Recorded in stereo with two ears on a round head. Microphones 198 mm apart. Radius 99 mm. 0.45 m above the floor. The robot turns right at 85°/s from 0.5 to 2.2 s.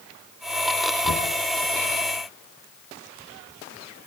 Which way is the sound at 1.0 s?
80° left.